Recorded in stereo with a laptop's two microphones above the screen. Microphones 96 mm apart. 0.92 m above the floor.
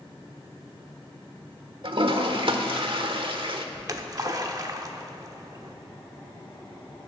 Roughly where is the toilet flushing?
Right.